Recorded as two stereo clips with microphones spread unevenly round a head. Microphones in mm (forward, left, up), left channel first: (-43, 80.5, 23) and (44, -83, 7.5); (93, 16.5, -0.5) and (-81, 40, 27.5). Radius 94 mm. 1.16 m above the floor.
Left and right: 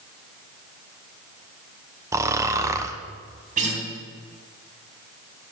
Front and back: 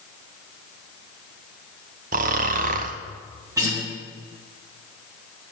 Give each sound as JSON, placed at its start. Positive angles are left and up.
{"t": 2.1, "sound": "snoring", "azimuth_deg": -135, "distance_m": 0.8}
{"t": 3.6, "sound": "a guitar", "azimuth_deg": -115, "distance_m": 3.5}